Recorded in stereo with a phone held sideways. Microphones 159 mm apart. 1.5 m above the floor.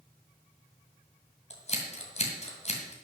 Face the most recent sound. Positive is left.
turn(degrees=45)  # may be behind; listen again after turning